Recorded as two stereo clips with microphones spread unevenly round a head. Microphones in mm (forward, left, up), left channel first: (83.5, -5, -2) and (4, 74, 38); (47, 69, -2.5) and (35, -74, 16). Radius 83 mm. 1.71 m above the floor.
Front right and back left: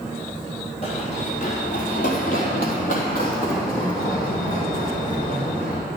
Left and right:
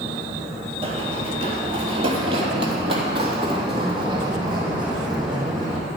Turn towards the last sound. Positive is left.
turn(degrees=-40)